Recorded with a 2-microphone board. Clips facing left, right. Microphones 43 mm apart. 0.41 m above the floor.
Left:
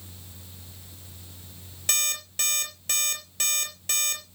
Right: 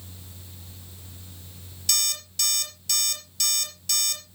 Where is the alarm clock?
40° left (ahead or behind), 4 m.